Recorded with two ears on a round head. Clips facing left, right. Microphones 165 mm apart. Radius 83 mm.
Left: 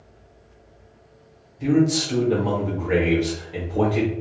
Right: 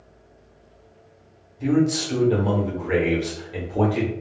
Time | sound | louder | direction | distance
1.6 | a man speaking | left 1 dB | centre (ahead or behind) | 0.9 m